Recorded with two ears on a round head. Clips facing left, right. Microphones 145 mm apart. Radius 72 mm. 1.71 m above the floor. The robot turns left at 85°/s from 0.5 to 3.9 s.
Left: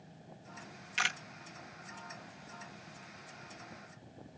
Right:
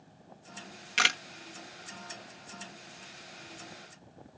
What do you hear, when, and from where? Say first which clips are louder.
1.0 s a camera shutter: right 6 dB; 70° right (ahead or behind); by 1.2 s 85° right